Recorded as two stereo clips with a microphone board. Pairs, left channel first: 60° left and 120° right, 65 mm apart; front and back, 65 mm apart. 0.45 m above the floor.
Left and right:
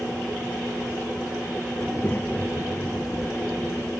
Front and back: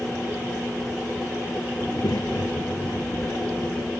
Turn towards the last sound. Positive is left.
turn(degrees=0)